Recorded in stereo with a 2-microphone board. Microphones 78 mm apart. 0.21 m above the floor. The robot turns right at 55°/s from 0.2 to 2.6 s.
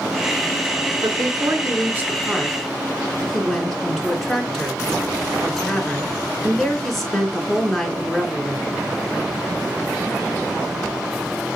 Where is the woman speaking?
80° right, 3 m; by 8.7 s 5° left, 3 m.